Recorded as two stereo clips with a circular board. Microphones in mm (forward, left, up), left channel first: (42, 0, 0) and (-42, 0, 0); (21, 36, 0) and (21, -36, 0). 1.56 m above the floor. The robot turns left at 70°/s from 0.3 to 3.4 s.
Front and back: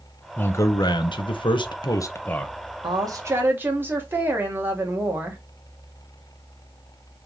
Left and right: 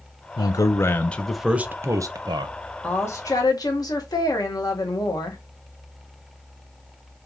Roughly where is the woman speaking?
Behind left.